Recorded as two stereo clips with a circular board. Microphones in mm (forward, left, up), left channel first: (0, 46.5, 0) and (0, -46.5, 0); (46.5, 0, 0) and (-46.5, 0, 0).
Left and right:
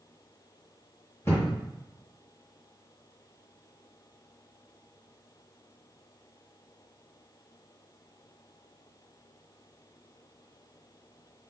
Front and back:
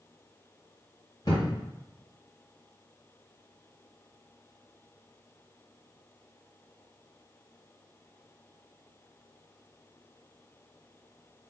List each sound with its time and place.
1.2 s a thud: 35° left, 1.6 m